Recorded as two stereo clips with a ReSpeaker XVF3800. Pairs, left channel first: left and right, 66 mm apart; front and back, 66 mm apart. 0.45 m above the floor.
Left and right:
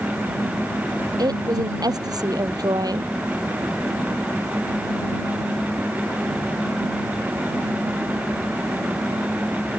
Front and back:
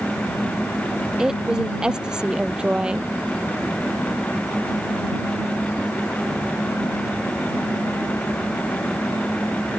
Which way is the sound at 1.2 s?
100° right.